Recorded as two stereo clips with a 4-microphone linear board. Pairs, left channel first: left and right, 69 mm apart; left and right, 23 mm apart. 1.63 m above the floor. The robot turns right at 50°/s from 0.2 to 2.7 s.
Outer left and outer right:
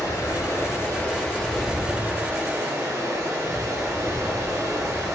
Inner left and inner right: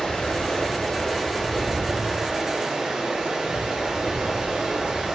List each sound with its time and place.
0.0 s running water: 110° left, 1.0 m; by 5.2 s 125° right, 1.0 m